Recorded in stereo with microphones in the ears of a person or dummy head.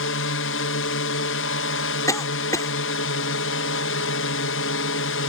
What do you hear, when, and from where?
0.0 s a drone: 65° left (ahead or behind)
2.1 s a cough: 20° left (ahead or behind)